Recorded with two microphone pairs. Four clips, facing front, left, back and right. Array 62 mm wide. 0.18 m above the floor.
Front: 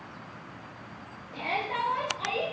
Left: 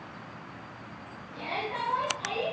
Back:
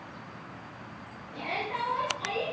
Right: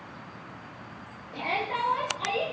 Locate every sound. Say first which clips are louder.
1.3 s a shout: right 4 dB, front 2 dB; 45° right, 3.5 m